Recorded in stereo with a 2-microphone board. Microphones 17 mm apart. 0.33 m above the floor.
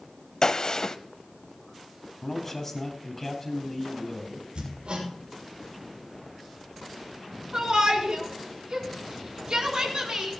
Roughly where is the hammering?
Right.